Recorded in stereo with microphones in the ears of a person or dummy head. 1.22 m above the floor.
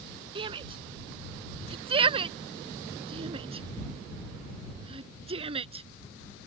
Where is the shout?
30° right (ahead or behind); by 5.8 s 35° right (ahead or behind).